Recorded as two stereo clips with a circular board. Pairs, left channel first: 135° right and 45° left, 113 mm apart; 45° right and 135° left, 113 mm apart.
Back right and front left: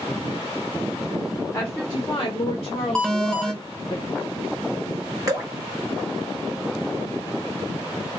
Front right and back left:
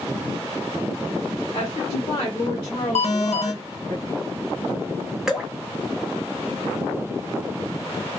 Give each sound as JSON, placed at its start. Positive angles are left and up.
{"t": 1.5, "sound": "a woman speaking", "azimuth_deg": -65, "distance_m": 1.0}
{"t": 3.0, "sound": "an alarm", "azimuth_deg": -50, "distance_m": 0.8}
{"t": 5.3, "sound": "dripping", "azimuth_deg": 55, "distance_m": 1.0}